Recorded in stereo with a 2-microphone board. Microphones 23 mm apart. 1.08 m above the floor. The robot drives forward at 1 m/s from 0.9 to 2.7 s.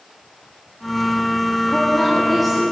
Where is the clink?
No clink in this recording.